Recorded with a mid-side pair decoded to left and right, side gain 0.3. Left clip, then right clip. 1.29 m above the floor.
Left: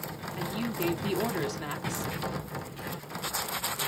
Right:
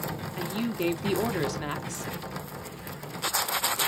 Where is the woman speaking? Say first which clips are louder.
Right 1 dB; 35° right, 1.0 m.